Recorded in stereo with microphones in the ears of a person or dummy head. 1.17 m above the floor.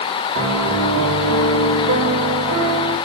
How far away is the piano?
About 3 m.